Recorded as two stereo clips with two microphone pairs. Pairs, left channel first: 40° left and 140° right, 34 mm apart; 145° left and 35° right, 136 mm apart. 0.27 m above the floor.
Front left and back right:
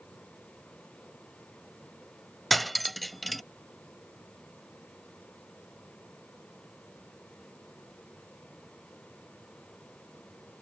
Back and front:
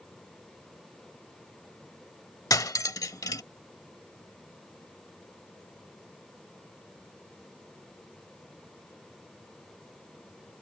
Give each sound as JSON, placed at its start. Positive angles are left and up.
{"t": 2.5, "sound": "cutlery clinking", "azimuth_deg": 130}